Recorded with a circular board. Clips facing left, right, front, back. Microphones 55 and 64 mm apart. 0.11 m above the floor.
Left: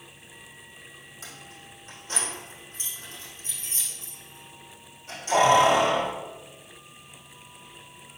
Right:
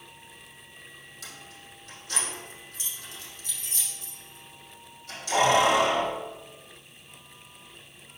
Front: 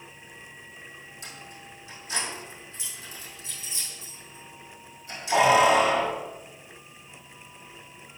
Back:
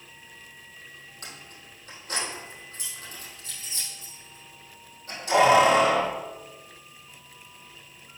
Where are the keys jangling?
150° left, 3 m.